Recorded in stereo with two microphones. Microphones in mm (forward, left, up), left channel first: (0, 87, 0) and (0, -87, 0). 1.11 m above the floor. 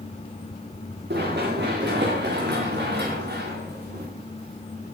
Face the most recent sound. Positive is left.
turn(degrees=-60)  # may be behind; listen again after turning